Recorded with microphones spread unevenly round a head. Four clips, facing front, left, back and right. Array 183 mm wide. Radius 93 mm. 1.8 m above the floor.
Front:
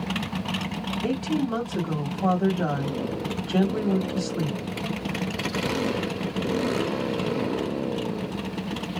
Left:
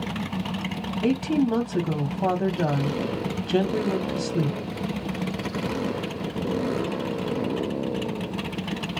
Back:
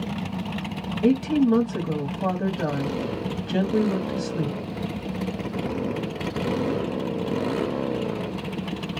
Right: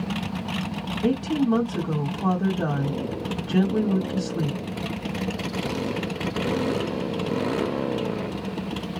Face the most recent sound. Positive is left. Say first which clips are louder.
# even, back 7 dB
turn(degrees=115)